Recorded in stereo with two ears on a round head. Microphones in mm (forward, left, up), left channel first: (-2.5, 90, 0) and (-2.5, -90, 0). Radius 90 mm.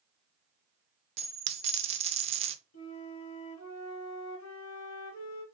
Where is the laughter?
I don't hear laughter.